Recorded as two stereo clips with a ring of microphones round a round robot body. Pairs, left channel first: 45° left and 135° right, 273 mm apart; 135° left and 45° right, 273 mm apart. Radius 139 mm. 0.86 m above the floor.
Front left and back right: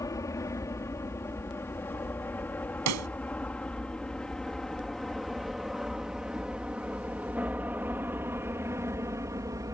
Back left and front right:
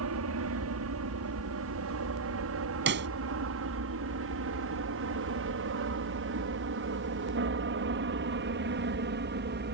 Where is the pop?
100° right.